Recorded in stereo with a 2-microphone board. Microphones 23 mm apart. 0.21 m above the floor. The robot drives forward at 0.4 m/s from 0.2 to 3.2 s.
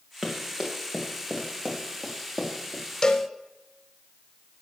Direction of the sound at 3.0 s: 30° left (ahead or behind).